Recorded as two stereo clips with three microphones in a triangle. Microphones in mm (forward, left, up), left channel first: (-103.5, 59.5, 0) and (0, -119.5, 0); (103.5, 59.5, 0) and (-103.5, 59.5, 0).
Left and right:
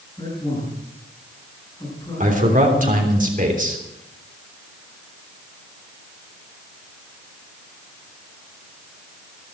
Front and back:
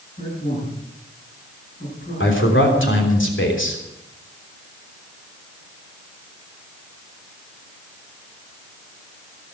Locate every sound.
0.2 s a man speaking: 50° left, 9.5 m
2.2 s a man speaking: 10° right, 3 m